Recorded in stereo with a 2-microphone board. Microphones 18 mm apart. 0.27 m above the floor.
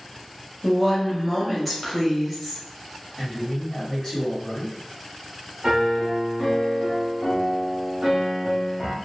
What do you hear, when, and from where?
0.6 s a woman speaking: 10° left (ahead or behind), 0.9 m
3.2 s a man speaking: 30° left (ahead or behind), 1.7 m
5.6 s a piano: 25° right (ahead or behind), 0.8 m